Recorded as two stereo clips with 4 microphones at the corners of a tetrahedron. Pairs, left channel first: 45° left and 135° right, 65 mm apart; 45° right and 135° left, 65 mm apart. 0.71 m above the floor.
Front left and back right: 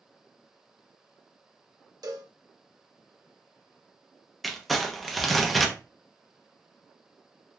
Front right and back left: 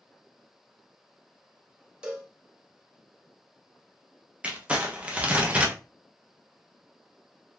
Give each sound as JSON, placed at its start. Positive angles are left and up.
{"t": 2.0, "sound": "a cowbell", "azimuth_deg": -150, "distance_m": 0.7}
{"t": 4.4, "sound": "crumpling", "azimuth_deg": 130, "distance_m": 0.7}